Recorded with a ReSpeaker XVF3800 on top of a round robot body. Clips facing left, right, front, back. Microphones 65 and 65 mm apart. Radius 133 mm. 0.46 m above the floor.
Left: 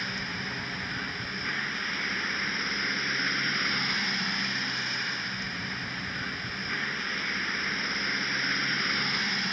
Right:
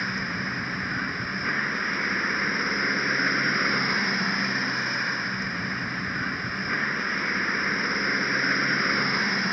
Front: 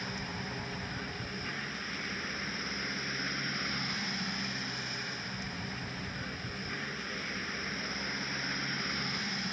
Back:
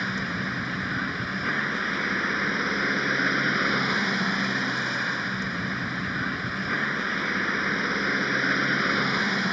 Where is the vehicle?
155° right.